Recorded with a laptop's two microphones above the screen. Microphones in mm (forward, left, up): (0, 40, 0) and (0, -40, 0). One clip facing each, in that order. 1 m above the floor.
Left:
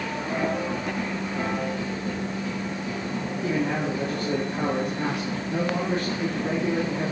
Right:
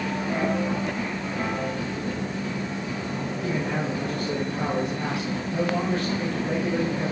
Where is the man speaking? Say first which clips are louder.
Left 2 dB; 30° left (ahead or behind), 2.5 m.